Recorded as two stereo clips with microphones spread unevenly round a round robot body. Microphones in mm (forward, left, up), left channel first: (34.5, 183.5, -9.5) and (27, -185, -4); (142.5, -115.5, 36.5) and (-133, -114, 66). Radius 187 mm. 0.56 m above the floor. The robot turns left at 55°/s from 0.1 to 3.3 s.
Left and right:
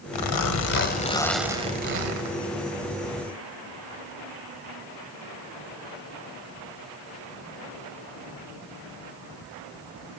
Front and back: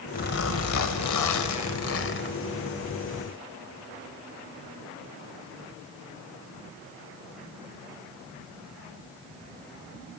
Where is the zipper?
65° left, 1.8 m; by 2.4 s 55° right, 1.8 m.